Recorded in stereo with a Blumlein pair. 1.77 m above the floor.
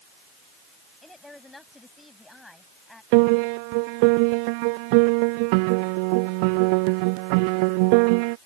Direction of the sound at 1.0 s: 5° left.